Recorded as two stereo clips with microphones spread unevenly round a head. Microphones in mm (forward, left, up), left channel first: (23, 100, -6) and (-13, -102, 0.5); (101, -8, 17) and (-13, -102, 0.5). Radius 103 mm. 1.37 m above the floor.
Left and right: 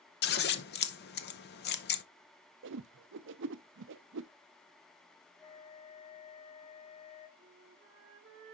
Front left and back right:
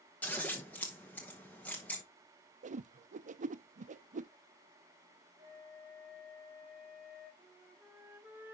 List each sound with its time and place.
0.2 s scissors: 120° left, 0.7 m
2.6 s a whoosh: 125° right, 0.5 m
5.4 s a flute: 140° left, 3 m
7.4 s a flute: 65° right, 1.4 m